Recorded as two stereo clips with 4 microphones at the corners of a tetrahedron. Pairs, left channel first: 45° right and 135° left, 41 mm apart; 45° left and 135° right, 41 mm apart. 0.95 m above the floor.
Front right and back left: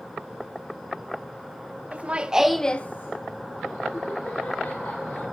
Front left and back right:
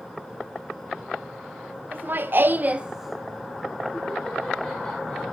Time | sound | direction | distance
1.9 | laughter | 175° right | 1.2 m